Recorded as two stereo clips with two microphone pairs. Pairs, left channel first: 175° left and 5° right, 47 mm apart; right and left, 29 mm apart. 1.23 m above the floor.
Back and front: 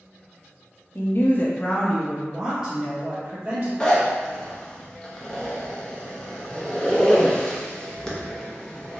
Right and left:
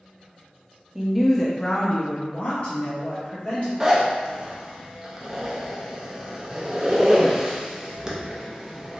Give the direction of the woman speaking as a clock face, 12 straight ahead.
6 o'clock.